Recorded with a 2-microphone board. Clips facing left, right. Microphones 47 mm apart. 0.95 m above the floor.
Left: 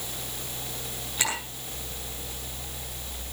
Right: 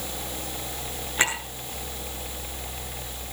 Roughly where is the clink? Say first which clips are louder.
Right 5 dB; right.